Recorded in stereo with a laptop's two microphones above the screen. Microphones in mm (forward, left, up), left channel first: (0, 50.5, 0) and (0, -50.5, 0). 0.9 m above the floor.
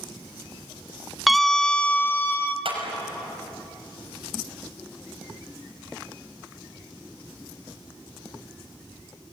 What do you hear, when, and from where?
1.3 s a scream: centre (ahead or behind), 0.7 m; by 2.5 s 20° left (ahead or behind), 0.9 m
2.6 s a clap: 65° right (ahead or behind), 5.5 m